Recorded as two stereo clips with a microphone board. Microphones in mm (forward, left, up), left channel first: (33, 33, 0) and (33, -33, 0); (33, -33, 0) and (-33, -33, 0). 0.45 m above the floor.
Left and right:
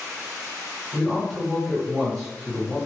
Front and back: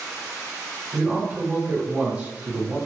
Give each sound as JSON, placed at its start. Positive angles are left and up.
{"t": 0.9, "sound": "a man speaking", "azimuth_deg": -175, "distance_m": 1.5}